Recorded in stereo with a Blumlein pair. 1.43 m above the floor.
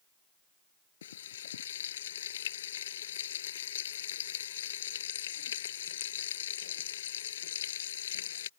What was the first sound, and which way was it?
Frying, 60° left.